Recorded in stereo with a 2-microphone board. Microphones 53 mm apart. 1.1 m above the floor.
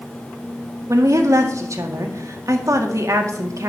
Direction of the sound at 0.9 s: 65° right (ahead or behind).